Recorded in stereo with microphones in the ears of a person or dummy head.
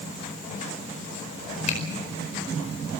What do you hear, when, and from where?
1.7 s a finger snap: 45° left (ahead or behind), 4.5 m